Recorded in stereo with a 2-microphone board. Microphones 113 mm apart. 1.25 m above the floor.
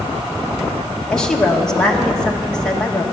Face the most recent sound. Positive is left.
turn(degrees=5)  # may be behind; listen again after turning